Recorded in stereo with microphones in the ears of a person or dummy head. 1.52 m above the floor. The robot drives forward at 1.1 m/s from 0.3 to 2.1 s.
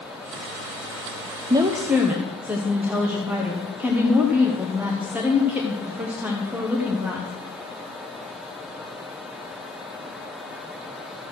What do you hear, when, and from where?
1.5 s a woman speaking: 25° right (ahead or behind), 0.6 m; by 7.3 s 10° right (ahead or behind), 1.2 m